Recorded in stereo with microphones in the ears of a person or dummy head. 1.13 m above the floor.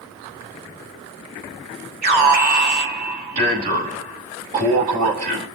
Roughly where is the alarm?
Right.